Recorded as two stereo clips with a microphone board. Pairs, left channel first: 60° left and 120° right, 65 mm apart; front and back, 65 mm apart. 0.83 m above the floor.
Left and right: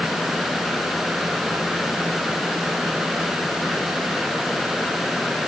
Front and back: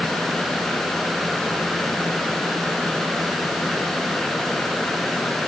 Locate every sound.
Only background noise.